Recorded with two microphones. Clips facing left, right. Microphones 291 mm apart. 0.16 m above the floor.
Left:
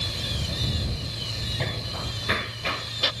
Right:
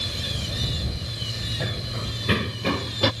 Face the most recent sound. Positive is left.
turn(degrees=-65)  # may be behind; listen again after turning